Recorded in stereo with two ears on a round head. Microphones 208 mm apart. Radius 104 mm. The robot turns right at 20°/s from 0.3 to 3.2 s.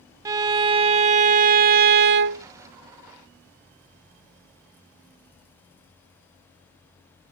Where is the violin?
160° right; by 2.5 s 120° right.